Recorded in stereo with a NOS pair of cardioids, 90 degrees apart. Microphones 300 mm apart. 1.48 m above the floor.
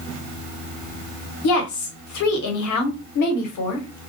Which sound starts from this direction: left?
A woman speaking, at 1.4 s.